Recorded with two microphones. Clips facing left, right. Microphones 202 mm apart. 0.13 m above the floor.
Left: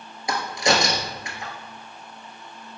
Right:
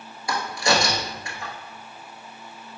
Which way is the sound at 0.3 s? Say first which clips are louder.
Left 1 dB; 20° left (ahead or behind).